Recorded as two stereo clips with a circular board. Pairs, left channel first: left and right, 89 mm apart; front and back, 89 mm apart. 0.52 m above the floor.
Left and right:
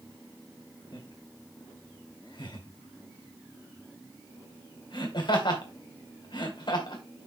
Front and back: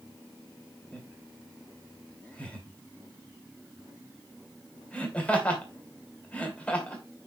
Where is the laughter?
75° left, 2.5 m.